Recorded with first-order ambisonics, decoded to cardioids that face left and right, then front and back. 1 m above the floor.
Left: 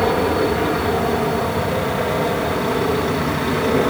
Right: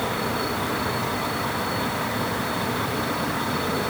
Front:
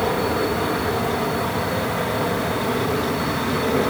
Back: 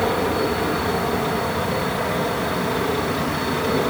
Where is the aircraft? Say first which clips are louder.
Left 8 dB, back 1 dB; 90° left; by 3.9 s 85° left.